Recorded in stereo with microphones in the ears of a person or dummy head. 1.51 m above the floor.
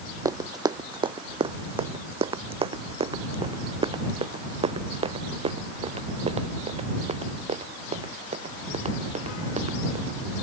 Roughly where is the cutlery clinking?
No cutlery clinking in this recording.